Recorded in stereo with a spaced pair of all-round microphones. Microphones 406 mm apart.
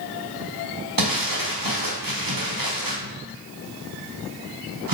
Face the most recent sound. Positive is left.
turn(degrees=-55)  # may be behind; listen again after turning